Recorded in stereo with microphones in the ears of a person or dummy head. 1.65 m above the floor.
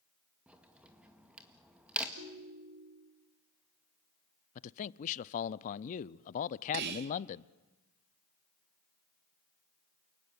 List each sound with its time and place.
0.5 s a crack: 5° right (ahead or behind), 2.0 m
2.2 s a ringtone: 80° right, 4.5 m
4.5 s a man speaking: 45° left (ahead or behind), 0.6 m
6.7 s whispering: 65° right (ahead or behind), 1.1 m